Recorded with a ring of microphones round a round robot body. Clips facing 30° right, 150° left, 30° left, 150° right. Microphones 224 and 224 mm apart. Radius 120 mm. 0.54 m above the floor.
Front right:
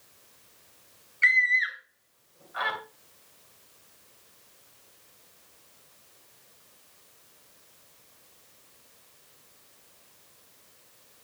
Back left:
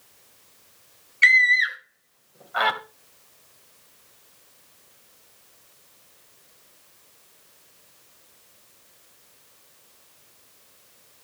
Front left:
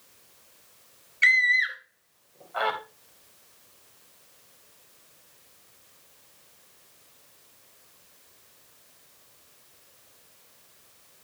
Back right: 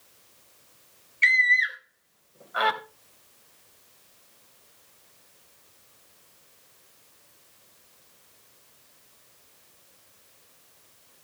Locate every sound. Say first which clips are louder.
1.2 s a scream: back left 5 dB, back right 1 dB; 105° left, 3 m; by 2.8 s 145° left, 3 m